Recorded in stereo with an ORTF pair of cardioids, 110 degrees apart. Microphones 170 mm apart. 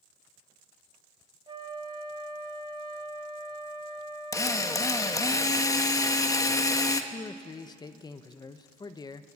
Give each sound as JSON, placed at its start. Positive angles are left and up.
{"t": 1.5, "sound": "a flute", "azimuth_deg": -30, "distance_m": 2.0}
{"t": 4.3, "sound": "a drill", "azimuth_deg": 20, "distance_m": 1.4}
{"t": 7.1, "sound": "a man speaking", "azimuth_deg": 25, "distance_m": 0.9}